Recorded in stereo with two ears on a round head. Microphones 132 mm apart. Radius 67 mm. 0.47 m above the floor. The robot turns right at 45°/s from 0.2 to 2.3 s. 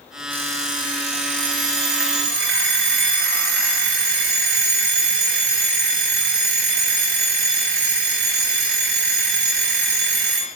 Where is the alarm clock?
165° right, 3 m; by 10.5 s 75° right, 3 m.